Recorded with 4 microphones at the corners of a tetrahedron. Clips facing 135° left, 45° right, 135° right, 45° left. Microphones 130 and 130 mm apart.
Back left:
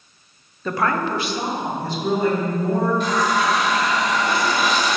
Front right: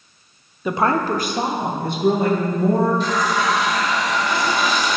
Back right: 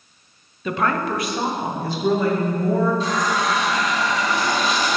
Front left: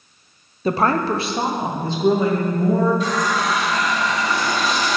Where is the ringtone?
No ringtone in this recording.